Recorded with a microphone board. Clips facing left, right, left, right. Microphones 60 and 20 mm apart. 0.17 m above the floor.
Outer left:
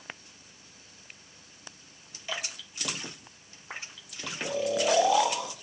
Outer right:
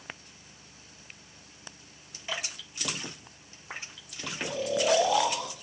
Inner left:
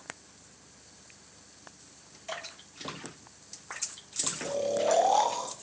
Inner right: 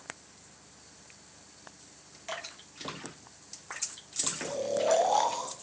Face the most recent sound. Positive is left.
turn(degrees=5)  # may be behind; listen again after turning